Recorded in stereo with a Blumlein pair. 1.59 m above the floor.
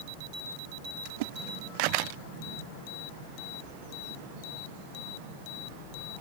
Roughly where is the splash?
Ahead right.